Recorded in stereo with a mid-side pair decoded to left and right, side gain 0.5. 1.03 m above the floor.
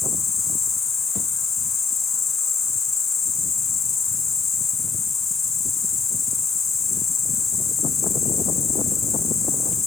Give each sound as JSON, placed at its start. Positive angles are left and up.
{"t": 0.0, "sound": "an insect", "azimuth_deg": 45, "distance_m": 1.8}